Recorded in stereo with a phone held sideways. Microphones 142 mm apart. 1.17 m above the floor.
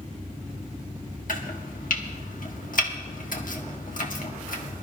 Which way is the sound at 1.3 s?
70° left (ahead or behind).